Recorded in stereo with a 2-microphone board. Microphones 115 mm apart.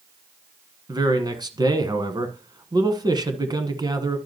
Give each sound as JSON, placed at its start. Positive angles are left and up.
{"t": 0.9, "sound": "a man speaking", "side_deg": -35, "distance_m": 1.2}